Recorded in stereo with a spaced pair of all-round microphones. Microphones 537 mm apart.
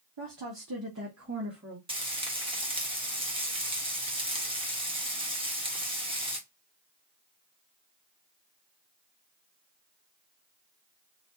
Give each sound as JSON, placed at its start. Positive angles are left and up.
{"t": 0.2, "sound": "a woman speaking", "side_deg": -55, "distance_m": 1.0}
{"t": 1.9, "sound": "frying", "side_deg": -10, "distance_m": 1.3}